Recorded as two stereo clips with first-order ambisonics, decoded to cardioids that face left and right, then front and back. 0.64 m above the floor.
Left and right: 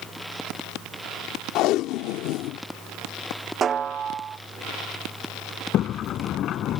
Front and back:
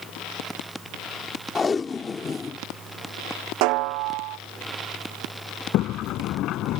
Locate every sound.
1.6 s tape being pulled: 70° left
3.6 s a snare drum: 155° right
5.7 s a sliding door: 40° left